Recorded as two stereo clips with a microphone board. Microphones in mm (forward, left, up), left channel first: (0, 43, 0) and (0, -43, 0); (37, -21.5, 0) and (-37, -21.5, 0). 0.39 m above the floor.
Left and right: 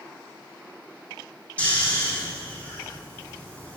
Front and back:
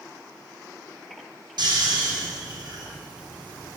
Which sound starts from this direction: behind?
Snoring, at 1.6 s.